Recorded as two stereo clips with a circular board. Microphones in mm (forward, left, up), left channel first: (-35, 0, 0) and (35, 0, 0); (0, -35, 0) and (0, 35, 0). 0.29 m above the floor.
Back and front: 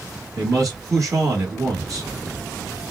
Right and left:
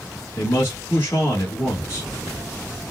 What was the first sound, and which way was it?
A man speaking, 35° right.